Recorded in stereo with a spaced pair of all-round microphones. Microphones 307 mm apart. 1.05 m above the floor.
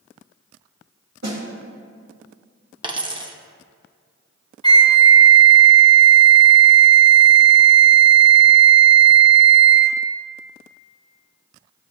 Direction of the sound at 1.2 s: 60° right (ahead or behind).